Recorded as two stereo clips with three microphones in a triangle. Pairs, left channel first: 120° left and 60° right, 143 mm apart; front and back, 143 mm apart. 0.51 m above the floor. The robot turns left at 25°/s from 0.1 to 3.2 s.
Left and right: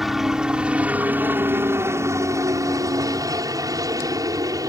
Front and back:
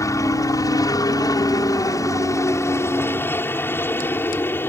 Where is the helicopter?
25° left; by 4.7 s 50° right.